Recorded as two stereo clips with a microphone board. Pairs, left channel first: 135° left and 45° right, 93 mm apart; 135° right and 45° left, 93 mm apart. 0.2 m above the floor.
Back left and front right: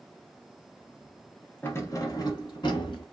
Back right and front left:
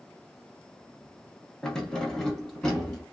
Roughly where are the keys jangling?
Behind left.